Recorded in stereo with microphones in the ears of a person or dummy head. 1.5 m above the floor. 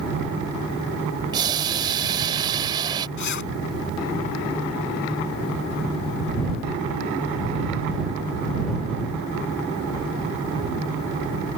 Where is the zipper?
55° left (ahead or behind).